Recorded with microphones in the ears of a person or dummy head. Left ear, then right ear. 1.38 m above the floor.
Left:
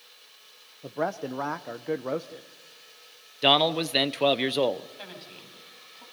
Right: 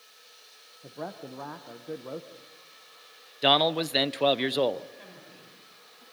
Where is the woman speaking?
40° left (ahead or behind), 8 m.